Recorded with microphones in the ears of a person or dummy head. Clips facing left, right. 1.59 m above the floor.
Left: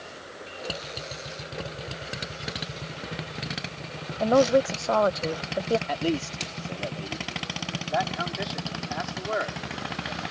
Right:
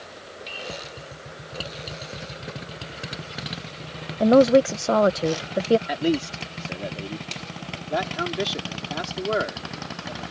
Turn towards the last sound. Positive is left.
turn(degrees=-50)  # may be behind; listen again after turning